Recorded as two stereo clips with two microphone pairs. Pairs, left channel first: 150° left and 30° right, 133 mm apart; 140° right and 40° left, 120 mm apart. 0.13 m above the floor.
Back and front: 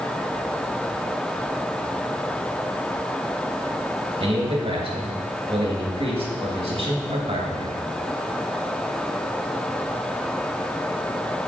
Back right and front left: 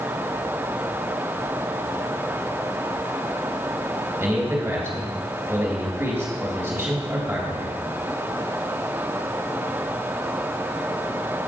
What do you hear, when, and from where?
4.2 s a man speaking: 20° right, 2.5 m